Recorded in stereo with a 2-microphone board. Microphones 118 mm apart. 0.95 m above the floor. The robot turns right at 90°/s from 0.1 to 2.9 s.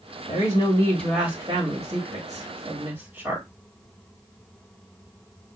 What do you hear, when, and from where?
0.3 s a woman speaking: 105° left, 1.3 m; by 3.5 s 20° right, 1.3 m